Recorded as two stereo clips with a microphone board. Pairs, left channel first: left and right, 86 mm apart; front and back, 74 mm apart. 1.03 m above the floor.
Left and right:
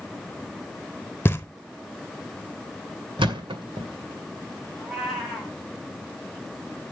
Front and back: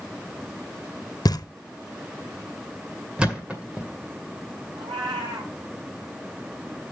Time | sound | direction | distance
1.2 | knocking | 25° left | 0.7 m
3.2 | a thud | 105° right | 2 m
4.8 | a cat meowing | 175° left | 3 m